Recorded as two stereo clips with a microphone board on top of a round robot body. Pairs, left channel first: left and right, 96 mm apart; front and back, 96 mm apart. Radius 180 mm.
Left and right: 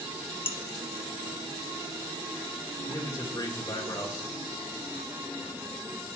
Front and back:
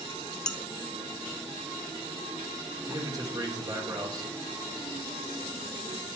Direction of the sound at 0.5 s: 80° left.